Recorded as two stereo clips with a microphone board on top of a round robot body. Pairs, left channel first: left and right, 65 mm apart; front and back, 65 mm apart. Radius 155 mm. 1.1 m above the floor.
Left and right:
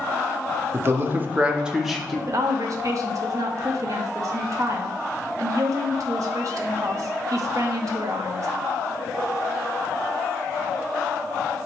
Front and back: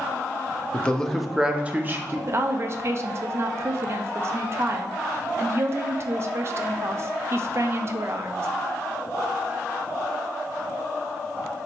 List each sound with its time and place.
0.7 s a man speaking: 65° right, 0.8 m; by 2.2 s 170° left, 0.8 m
2.3 s a woman speaking: 130° right, 0.5 m